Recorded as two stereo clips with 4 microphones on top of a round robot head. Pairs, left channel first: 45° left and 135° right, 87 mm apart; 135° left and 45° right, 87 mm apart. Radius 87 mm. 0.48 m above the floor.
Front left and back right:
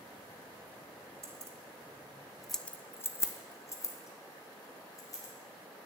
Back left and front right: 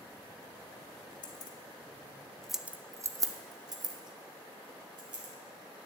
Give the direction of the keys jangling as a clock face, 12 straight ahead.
6 o'clock.